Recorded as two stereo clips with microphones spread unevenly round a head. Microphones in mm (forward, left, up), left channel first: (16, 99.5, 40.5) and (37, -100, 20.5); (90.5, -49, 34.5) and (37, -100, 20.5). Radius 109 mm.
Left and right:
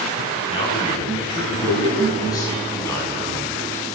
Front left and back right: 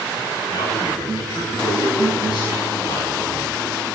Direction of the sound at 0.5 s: 30° left.